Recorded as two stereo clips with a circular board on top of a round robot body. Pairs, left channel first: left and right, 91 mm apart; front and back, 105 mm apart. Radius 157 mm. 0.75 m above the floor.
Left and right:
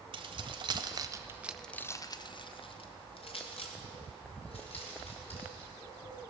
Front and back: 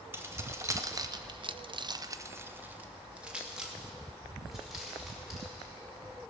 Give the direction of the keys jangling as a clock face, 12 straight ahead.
4 o'clock.